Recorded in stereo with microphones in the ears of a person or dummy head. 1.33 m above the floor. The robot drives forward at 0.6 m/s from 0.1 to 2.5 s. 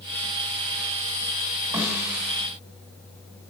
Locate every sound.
1.7 s a snare drum: 5° right (ahead or behind), 2.5 m; by 2.4 s centre (ahead or behind), 3 m